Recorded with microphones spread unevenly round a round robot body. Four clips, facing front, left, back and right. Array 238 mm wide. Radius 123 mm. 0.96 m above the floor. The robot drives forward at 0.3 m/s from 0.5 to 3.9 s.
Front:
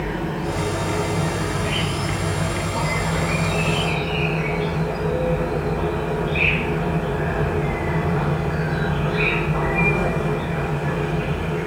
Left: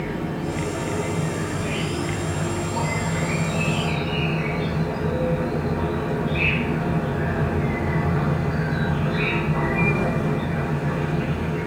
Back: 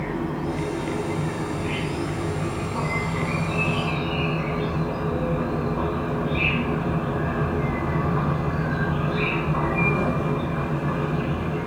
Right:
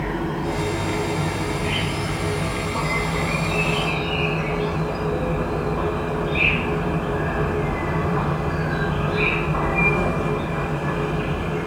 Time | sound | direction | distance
0.0 | an insect | 65° right | 1.8 m